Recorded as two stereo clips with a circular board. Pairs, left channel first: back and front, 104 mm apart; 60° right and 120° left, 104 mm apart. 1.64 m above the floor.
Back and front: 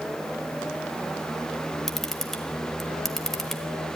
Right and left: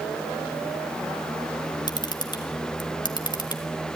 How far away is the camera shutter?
About 1.4 m.